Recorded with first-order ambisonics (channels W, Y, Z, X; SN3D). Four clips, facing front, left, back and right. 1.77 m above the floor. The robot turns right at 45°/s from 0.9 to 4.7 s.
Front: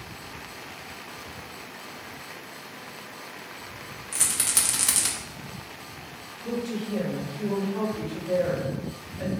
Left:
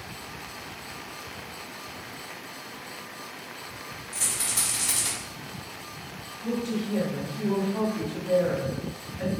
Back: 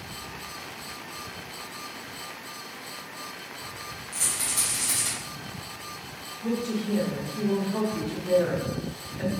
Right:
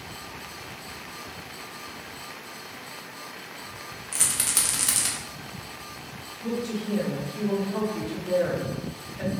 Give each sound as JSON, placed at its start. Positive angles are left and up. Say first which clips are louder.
{"t": 4.1, "sound": "a rattle", "louder": "right 3 dB, front 3 dB", "azimuth_deg": -60, "distance_m": 0.6}
{"t": 6.4, "sound": "a woman speaking", "louder": "even, back 2 dB", "azimuth_deg": -135, "distance_m": 1.0}